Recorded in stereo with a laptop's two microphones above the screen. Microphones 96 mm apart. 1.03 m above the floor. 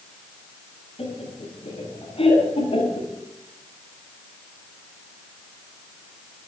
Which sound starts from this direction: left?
Laughter, at 1.0 s.